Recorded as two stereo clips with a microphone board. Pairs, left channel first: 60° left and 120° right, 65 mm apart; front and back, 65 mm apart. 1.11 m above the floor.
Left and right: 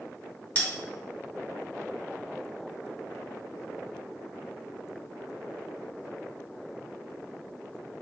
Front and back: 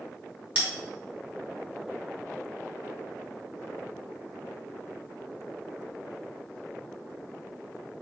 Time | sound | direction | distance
0.6 | a bell | 125° left | 1.9 m